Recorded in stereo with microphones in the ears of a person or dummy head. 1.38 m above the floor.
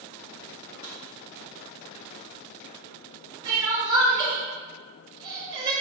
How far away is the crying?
About 0.9 m.